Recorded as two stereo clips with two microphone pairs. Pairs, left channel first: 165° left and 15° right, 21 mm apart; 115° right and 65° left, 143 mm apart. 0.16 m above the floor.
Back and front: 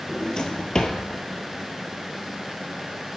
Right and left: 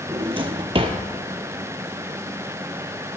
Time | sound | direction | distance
0.1 | a drawer | 115° left | 1.2 m